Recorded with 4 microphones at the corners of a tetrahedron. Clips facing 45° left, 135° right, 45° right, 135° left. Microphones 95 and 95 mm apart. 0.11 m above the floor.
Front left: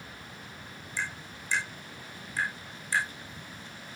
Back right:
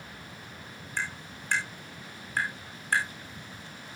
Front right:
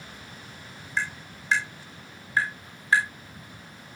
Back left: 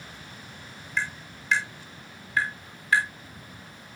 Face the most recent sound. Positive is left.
turn(degrees=-105)